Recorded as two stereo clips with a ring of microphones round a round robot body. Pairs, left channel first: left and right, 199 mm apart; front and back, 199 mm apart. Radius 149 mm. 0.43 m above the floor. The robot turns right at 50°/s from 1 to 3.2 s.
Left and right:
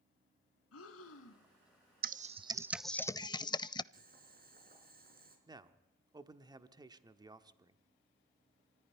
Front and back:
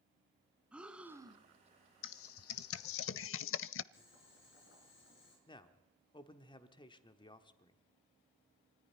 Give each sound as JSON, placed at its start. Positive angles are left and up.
{"t": 0.7, "sound": "breathing", "azimuth_deg": 95, "distance_m": 1.2}
{"t": 2.0, "sound": "typing on a keyboard", "azimuth_deg": -40, "distance_m": 0.5}
{"t": 3.9, "sound": "boiling", "azimuth_deg": -50, "distance_m": 5.0}
{"t": 5.5, "sound": "a man speaking", "azimuth_deg": -40, "distance_m": 0.9}